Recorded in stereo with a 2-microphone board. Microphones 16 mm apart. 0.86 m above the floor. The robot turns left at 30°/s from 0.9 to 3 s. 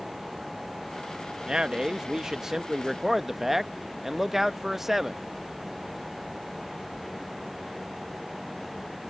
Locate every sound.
1.5 s a man speaking: 115° right; by 5.2 s 160° right